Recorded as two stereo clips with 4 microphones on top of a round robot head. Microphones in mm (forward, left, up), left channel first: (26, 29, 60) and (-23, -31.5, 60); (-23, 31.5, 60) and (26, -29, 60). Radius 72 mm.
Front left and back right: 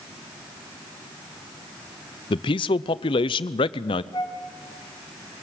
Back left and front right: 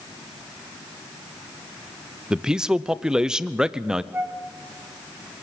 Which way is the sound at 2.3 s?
30° left.